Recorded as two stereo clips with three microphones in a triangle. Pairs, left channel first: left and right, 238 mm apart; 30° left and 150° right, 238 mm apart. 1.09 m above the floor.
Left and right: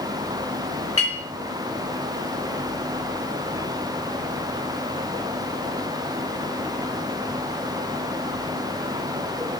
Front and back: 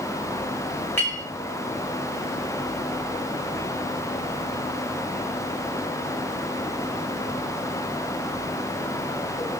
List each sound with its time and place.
1.0 s a clink: 110° left, 2 m